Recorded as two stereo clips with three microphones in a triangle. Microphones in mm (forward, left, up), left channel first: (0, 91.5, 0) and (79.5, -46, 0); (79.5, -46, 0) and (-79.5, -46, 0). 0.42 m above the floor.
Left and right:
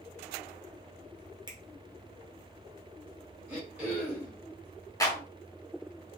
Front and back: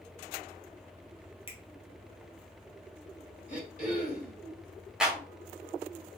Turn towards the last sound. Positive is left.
turn(degrees=105)